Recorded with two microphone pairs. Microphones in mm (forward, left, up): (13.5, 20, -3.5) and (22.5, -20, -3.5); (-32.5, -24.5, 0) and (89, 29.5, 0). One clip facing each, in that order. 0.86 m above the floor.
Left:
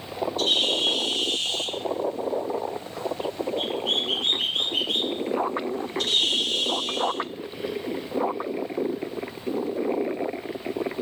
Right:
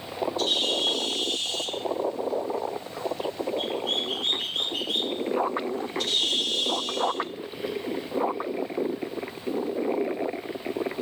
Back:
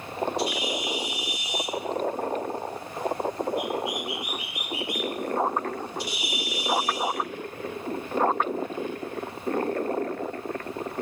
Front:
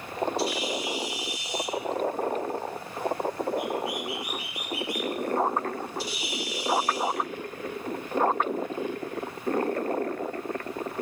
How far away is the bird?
About 2 m.